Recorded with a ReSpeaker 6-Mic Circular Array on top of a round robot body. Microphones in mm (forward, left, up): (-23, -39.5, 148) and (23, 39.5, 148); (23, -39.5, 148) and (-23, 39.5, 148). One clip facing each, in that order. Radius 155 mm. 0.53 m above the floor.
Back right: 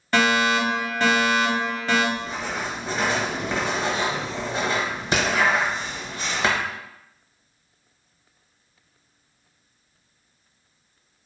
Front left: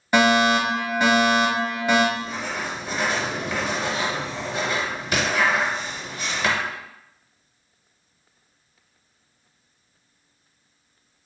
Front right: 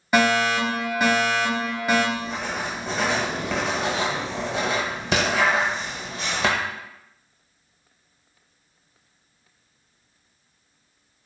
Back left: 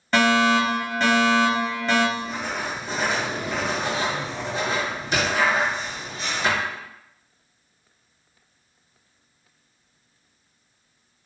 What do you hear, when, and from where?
0.1 s a fire alarm: 5° left, 1.6 m
2.1 s writing: 55° right, 1.1 m